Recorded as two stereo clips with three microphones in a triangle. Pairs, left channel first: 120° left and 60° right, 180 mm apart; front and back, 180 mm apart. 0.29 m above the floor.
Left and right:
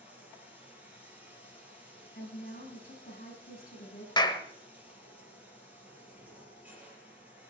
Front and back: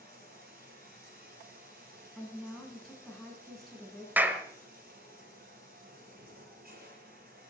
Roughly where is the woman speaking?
Left.